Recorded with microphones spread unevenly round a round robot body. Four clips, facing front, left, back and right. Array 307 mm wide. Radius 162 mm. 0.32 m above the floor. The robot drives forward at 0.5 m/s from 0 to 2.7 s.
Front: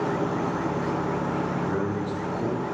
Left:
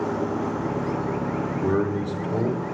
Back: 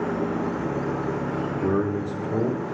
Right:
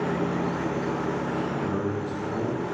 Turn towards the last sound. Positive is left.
turn(degrees=170)